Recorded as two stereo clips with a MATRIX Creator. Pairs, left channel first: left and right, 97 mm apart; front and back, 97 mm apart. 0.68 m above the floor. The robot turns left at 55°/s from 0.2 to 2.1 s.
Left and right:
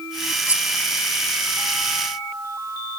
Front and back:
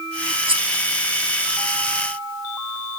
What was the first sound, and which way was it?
Cutlery clinking, 160° right.